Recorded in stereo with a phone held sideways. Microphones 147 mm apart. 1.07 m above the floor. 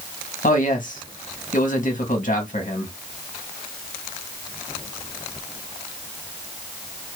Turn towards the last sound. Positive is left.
turn(degrees=65)  # may be behind; listen again after turning